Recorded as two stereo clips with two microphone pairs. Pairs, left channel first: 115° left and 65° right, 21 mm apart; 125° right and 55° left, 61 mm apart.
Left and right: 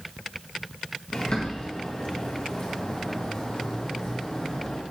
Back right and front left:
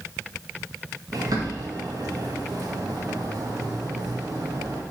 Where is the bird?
70° left, 2 m.